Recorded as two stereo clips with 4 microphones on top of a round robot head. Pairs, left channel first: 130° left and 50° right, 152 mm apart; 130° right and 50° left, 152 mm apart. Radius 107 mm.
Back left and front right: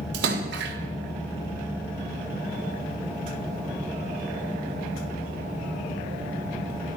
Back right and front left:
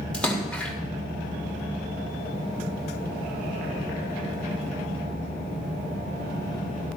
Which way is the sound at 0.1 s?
50° right.